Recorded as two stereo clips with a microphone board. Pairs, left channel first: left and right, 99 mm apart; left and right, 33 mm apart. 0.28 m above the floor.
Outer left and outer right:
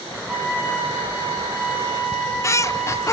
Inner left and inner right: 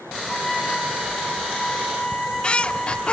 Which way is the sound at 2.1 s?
30° left (ahead or behind).